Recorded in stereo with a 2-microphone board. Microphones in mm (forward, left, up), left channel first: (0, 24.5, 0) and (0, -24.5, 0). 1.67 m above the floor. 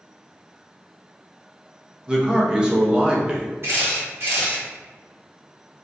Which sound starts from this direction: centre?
A man speaking, at 2.1 s.